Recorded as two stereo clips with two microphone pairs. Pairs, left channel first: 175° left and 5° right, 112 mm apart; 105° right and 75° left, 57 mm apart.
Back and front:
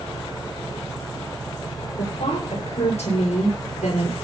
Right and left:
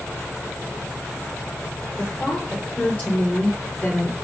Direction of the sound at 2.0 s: 175° right.